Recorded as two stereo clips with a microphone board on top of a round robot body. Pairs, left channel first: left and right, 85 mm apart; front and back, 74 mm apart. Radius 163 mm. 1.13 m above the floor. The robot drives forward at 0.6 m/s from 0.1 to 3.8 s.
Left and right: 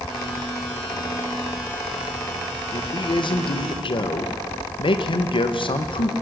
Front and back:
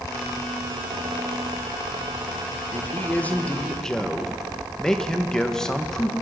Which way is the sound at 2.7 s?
60° left.